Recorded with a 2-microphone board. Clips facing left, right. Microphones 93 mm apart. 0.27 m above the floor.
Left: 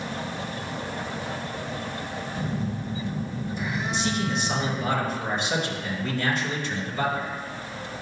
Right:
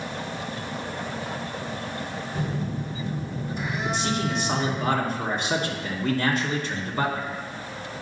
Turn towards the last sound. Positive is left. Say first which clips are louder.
# even
turn(degrees=-50)  # may be behind; listen again after turning